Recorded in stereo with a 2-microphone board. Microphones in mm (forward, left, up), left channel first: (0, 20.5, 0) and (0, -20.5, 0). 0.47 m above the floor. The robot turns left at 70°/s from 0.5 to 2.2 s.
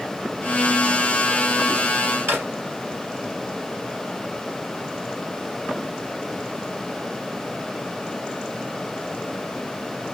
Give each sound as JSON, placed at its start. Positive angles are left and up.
{"t": 2.3, "sound": "a drawer", "side_deg": -80, "distance_m": 2.5}